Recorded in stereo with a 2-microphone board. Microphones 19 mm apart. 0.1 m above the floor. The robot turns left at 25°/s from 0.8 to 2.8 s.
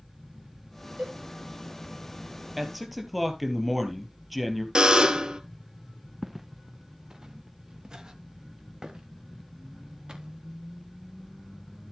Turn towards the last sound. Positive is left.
turn(degrees=-45)  # may be behind; listen again after turning